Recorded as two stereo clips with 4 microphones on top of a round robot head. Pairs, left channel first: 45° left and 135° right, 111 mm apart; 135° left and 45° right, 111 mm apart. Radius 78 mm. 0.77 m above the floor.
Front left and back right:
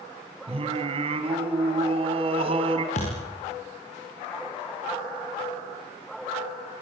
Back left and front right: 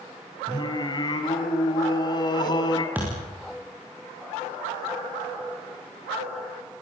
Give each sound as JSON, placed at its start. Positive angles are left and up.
{"t": 0.5, "sound": "singing", "azimuth_deg": -175, "distance_m": 3.0}
{"t": 3.0, "sound": "a thud", "azimuth_deg": 30, "distance_m": 7.5}